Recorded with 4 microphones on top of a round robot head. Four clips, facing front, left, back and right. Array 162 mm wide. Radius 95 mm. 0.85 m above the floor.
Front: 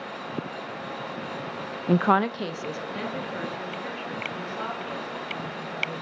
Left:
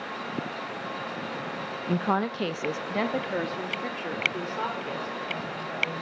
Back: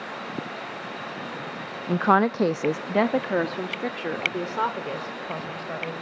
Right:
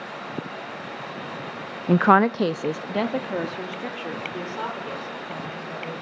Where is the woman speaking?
70° right, 0.5 m; by 5.9 s 175° right, 4 m.